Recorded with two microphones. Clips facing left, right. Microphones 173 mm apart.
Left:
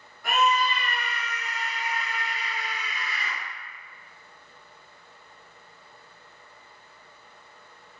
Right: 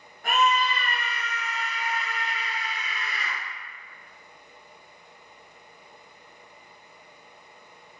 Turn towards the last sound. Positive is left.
turn(degrees=-50)  # may be behind; listen again after turning